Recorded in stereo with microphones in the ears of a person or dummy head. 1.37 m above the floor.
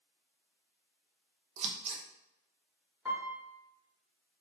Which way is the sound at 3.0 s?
5° right (ahead or behind).